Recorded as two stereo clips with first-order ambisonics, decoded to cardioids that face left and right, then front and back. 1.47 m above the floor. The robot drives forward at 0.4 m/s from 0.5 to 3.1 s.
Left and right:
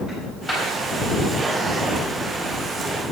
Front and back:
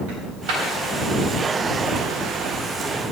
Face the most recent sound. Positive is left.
turn(degrees=170)